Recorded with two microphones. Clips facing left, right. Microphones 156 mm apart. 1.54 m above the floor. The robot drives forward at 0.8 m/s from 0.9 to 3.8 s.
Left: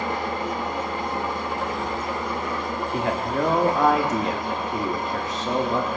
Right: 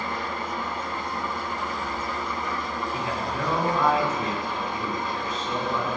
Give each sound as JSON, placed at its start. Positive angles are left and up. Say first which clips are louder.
{"t": 0.0, "sound": "an engine running", "louder": "left 4 dB", "side_deg": 85, "distance_m": 2.5}
{"t": 2.9, "sound": "a man speaking", "louder": "left 8 dB", "side_deg": 65, "distance_m": 2.0}